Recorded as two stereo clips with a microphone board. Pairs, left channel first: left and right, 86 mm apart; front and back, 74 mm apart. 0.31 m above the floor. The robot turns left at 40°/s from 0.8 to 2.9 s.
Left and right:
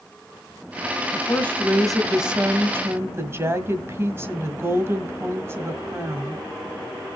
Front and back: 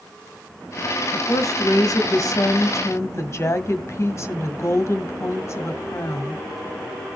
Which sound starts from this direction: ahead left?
A woman speaking, at 1.1 s.